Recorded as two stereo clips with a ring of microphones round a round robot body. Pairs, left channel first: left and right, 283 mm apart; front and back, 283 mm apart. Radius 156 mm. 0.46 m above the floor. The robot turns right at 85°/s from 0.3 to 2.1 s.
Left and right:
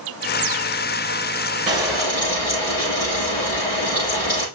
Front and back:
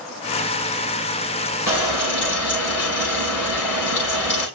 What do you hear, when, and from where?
1.7 s frying: 20° right, 7 m; by 4.5 s 15° left, 7 m